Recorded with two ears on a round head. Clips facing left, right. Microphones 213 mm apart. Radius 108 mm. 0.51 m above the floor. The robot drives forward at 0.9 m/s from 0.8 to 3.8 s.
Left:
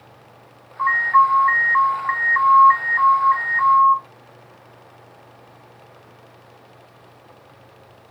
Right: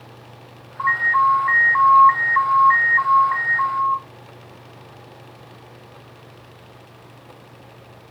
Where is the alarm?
5° left (ahead or behind), 1.2 m; by 4.0 s centre (ahead or behind), 1.7 m.